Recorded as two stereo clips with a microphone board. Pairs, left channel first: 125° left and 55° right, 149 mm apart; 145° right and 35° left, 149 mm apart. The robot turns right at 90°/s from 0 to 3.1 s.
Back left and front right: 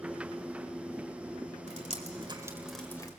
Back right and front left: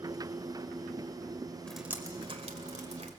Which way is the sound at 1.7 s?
65° right.